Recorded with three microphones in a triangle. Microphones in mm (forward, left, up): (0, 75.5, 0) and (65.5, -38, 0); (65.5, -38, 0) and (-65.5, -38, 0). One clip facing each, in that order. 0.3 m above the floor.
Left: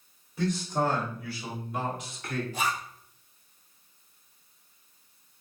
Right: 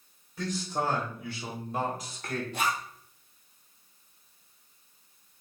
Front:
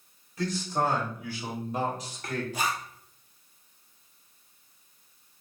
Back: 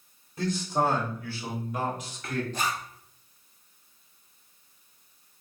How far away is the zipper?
About 1.2 m.